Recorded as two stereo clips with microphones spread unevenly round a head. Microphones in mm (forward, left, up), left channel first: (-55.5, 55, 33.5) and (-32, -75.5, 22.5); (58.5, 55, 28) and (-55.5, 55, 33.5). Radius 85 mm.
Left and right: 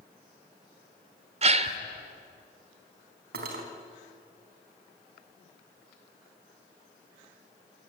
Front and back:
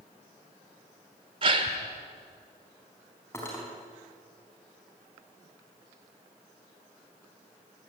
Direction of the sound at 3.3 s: 75° right.